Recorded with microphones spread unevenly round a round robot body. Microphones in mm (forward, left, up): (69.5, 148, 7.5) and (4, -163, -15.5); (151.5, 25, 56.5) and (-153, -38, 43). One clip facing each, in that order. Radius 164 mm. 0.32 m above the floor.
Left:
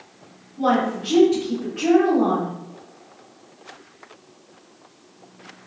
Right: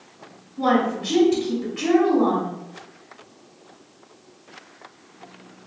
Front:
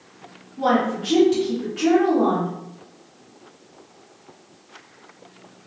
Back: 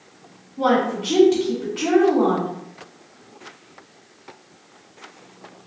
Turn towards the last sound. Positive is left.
turn(degrees=-150)